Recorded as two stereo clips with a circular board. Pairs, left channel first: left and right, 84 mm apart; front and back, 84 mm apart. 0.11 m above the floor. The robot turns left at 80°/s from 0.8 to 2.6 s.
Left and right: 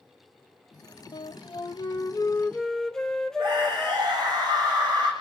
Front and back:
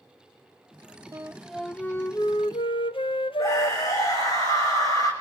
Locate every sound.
1.1 s a flute: 125° left, 0.6 m; by 4.0 s 5° left, 0.6 m
3.4 s a scream: 45° right, 5.5 m